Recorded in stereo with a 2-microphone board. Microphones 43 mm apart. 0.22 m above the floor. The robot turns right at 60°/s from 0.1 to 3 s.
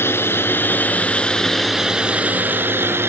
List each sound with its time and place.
0.0 s a drone: 85° left; by 3.1 s 100° right